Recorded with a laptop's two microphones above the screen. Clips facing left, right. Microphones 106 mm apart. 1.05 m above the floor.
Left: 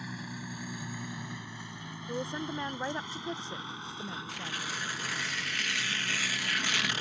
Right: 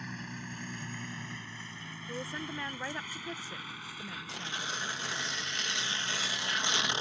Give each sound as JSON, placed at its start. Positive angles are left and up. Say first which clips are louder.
{"t": 0.0, "sound": "a vehicle", "louder": "left 2 dB", "side_deg": 5}
{"t": 2.1, "sound": "a woman speaking", "louder": "left 4 dB", "side_deg": 25}
{"t": 4.3, "sound": "tearing paper", "louder": "left 1 dB", "side_deg": -25}